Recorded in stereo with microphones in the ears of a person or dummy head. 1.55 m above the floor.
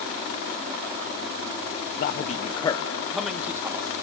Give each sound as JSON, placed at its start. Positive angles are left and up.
{"t": 2.0, "sound": "a man speaking", "side_deg": 55, "distance_m": 0.9}